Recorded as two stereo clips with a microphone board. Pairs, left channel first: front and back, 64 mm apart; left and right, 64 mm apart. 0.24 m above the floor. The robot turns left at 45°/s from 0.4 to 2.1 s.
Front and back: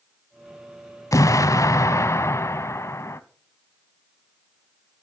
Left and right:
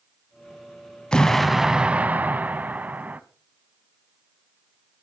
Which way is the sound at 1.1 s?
15° left.